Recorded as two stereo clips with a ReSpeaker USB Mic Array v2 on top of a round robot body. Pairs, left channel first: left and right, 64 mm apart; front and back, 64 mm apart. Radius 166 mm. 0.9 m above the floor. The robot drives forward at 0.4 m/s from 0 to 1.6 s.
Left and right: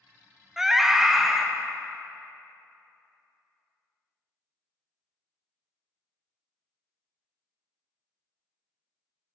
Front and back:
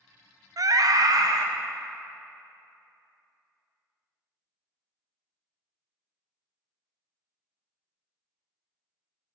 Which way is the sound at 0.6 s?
175° right.